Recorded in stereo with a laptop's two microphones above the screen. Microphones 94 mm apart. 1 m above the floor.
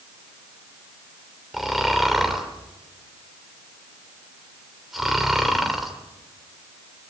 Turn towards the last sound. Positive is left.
turn(degrees=0)  # may be behind; listen again after turning